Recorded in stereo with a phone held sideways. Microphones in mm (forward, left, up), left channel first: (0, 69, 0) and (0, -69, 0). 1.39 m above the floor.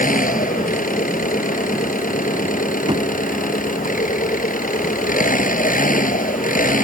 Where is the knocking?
35° right (ahead or behind).